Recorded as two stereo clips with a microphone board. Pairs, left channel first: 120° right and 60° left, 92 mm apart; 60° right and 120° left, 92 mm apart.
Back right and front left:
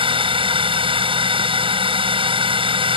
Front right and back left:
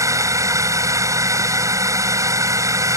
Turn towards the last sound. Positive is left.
turn(degrees=65)